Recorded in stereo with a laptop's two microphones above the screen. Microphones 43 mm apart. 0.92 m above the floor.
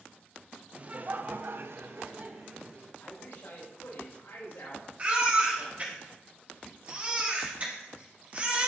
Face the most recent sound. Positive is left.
turn(degrees=-35)  # may be behind; listen again after turning